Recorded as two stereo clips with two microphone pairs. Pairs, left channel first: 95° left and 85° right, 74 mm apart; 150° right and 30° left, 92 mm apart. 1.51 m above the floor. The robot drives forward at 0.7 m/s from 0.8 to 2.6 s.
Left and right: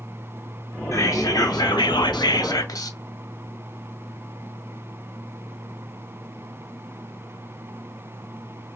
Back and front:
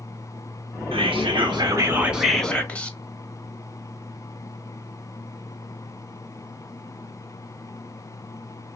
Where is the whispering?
45° left, 0.9 m; by 3.0 s 135° left, 0.8 m.